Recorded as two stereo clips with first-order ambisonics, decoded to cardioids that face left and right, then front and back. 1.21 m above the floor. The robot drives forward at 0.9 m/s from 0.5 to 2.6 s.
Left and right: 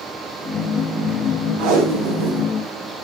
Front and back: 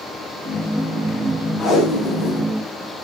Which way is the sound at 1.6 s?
75° right.